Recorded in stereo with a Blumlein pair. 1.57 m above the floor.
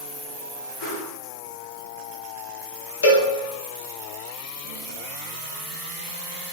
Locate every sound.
0.8 s a whoosh: 20° left, 1.2 m
3.0 s a cowbell: 65° left, 0.6 m